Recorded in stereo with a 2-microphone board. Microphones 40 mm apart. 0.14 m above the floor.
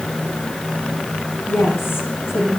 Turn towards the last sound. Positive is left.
turn(degrees=75)  # may be behind; listen again after turning